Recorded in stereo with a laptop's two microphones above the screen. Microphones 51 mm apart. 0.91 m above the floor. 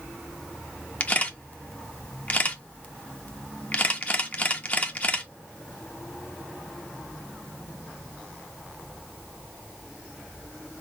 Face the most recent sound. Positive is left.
turn(degrees=30)  # may be behind; listen again after turning